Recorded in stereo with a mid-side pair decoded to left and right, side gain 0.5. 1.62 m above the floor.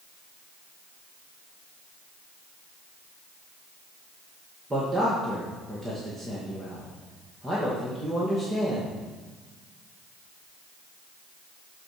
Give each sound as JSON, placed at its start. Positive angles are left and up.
{"t": 4.7, "sound": "a man speaking", "azimuth_deg": -15, "distance_m": 2.5}